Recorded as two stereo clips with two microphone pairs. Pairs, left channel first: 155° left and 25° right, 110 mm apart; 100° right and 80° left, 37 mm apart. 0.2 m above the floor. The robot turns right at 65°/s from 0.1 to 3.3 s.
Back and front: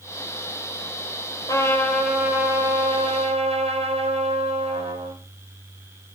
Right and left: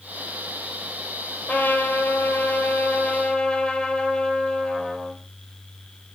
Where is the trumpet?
155° right, 4.5 m; by 5.2 s 35° right, 4.5 m.